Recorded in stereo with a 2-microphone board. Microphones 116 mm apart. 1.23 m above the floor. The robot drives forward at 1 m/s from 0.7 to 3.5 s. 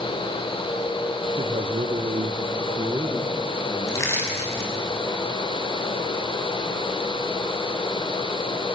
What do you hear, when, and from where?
1.4 s a man speaking: 50° right (ahead or behind), 1.1 m; by 4.9 s 30° right (ahead or behind), 1.7 m
3.9 s crushing: 25° left (ahead or behind), 6 m